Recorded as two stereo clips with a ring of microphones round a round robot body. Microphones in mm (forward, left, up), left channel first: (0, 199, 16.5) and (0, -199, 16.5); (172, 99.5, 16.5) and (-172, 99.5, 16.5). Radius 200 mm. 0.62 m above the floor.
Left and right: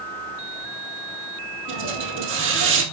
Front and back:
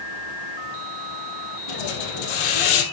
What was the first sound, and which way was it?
A hiss, 30° right.